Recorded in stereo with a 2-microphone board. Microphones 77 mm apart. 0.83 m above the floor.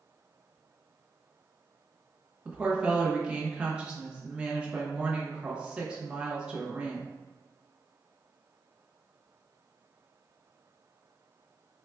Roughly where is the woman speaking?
Centre.